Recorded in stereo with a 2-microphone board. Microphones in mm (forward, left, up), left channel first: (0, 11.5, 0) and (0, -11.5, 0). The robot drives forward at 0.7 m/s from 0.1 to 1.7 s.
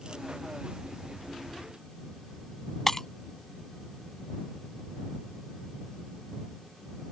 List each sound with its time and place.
2.9 s breaking glass: 20° left (ahead or behind)